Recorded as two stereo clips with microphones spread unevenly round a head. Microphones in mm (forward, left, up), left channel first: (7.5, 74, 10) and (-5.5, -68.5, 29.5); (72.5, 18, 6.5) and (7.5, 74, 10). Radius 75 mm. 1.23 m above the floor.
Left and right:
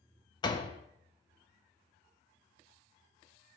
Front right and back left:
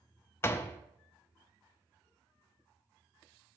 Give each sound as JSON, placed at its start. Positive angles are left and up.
{"t": 0.4, "sound": "a door slam", "azimuth_deg": 20, "distance_m": 0.8}